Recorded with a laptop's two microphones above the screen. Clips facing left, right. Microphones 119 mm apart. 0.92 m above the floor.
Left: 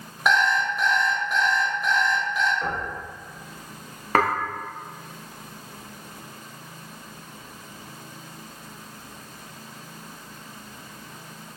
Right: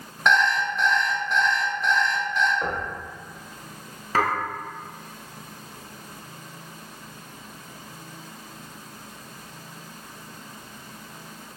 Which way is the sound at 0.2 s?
5° left (ahead or behind).